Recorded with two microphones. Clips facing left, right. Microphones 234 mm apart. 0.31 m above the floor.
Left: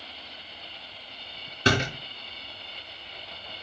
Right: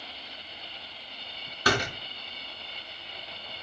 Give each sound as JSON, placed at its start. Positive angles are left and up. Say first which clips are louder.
{"t": 1.6, "sound": "a door slam", "louder": "left 3 dB", "side_deg": 25, "distance_m": 3.0}